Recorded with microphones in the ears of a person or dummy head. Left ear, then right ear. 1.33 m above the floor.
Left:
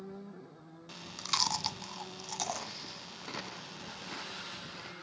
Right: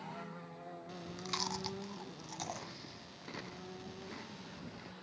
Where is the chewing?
35° left (ahead or behind).